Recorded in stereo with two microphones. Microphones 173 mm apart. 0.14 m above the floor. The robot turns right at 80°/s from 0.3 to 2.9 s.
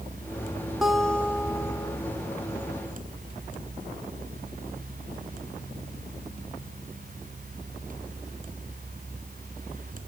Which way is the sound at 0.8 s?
5° right (ahead or behind).